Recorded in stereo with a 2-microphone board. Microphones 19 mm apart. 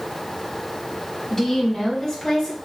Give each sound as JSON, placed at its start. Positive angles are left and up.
{"t": 1.3, "sound": "a woman speaking", "side_deg": 25, "distance_m": 2.0}